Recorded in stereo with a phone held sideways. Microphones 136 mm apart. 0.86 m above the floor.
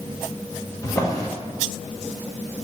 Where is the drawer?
25° left (ahead or behind), 0.6 m.